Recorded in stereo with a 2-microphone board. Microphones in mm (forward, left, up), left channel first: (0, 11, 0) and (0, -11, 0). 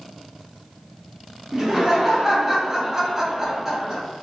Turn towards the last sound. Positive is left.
turn(degrees=-10)  # may be behind; listen again after turning